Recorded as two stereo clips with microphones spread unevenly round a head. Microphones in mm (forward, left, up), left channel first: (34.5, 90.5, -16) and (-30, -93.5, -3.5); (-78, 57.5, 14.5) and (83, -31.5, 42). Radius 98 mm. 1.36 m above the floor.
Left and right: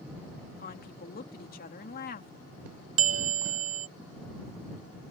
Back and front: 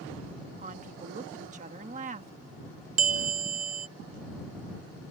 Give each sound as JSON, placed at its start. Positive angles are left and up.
{"t": 0.6, "sound": "a woman speaking", "azimuth_deg": 25}
{"t": 3.0, "sound": "a bell", "azimuth_deg": -80}